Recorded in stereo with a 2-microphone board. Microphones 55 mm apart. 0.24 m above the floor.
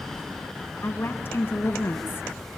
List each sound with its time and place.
0.8 s a woman speaking: 40° left (ahead or behind), 3 m